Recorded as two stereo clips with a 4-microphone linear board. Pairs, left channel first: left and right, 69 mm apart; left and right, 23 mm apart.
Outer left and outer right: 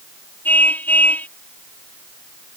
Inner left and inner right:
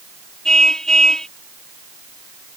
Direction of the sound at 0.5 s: 25° left (ahead or behind).